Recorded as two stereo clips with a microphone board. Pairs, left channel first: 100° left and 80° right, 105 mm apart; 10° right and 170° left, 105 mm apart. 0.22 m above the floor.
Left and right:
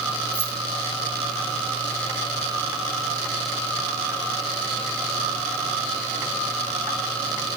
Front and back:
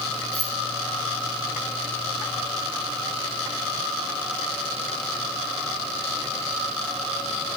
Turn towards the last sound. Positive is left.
turn(degrees=75)